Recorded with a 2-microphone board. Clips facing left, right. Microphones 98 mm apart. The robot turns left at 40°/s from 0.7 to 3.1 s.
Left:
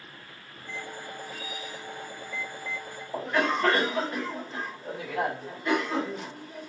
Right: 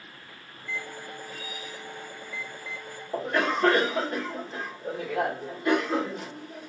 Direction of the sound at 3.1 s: 45° right (ahead or behind).